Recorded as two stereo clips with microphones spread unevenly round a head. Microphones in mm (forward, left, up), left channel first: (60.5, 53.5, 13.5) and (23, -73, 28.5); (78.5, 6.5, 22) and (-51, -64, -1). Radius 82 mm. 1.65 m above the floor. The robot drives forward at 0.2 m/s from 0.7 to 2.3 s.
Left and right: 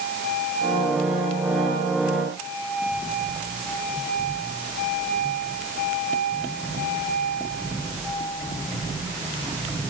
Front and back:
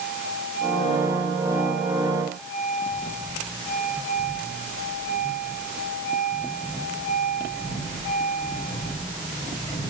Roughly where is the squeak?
No squeak in this recording.